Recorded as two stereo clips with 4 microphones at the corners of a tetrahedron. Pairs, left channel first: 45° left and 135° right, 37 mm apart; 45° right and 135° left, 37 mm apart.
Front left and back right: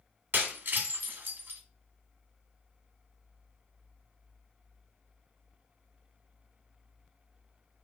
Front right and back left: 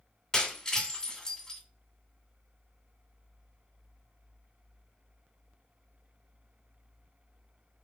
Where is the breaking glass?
115° right, 2.0 m.